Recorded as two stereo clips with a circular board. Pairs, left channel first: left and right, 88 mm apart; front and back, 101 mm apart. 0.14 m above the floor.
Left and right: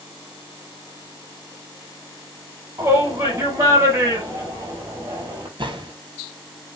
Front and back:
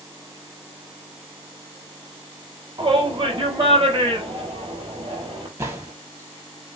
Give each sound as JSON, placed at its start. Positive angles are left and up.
{"t": 2.8, "sound": "a shout", "azimuth_deg": -145, "distance_m": 4.5}
{"t": 5.6, "sound": "a gunshot", "azimuth_deg": -115, "distance_m": 2.5}